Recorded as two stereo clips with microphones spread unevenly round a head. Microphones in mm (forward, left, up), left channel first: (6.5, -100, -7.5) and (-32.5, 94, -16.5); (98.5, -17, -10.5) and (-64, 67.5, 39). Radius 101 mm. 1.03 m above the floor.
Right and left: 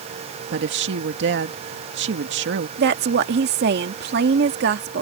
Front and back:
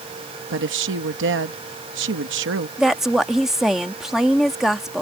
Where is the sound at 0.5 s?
130° left.